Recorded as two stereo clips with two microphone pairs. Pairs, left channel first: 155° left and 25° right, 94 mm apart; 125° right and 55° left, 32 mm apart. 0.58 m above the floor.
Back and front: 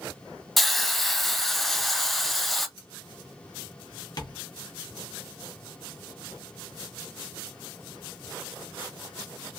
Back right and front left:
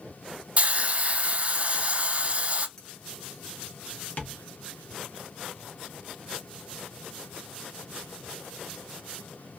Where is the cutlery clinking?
165° left, 1.4 m.